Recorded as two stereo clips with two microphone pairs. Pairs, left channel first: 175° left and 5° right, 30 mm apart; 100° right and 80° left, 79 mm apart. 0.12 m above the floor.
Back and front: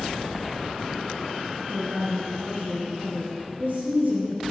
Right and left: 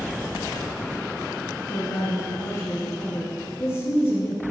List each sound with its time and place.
1.7 s a woman speaking: 60° right, 3 m